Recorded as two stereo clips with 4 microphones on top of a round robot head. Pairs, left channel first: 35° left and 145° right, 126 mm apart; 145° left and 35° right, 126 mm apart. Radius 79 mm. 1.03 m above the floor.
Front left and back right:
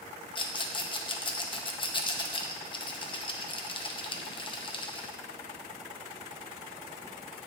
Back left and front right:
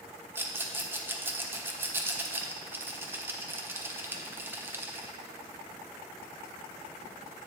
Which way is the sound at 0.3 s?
30° left.